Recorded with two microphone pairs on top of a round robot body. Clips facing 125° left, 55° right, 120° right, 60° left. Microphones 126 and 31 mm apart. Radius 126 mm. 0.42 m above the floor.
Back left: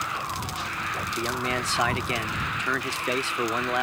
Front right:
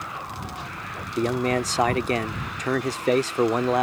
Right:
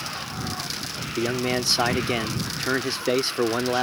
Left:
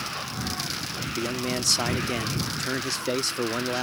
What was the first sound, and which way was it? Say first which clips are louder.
A man speaking: front right 8 dB, right 5 dB; 85° right.